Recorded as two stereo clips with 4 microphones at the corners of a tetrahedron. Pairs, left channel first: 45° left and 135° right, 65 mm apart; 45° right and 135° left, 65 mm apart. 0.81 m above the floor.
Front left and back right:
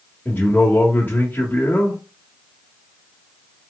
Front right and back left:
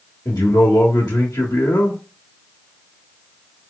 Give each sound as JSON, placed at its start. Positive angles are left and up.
{"t": 0.2, "sound": "a man speaking", "azimuth_deg": -20, "distance_m": 1.4}